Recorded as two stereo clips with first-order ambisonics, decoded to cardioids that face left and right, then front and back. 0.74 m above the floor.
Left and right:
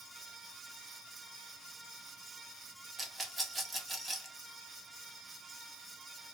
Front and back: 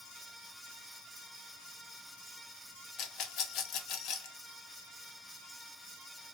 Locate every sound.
3.0 s a rattle: 15° right, 0.6 m